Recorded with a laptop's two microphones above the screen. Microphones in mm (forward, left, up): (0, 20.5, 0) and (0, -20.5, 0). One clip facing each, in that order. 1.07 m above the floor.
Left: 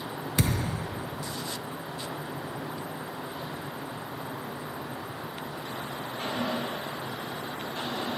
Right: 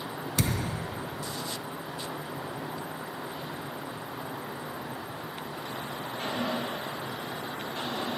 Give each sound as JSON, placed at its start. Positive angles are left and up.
{"t": 0.4, "sound": "a thud", "side_deg": 25, "distance_m": 0.7}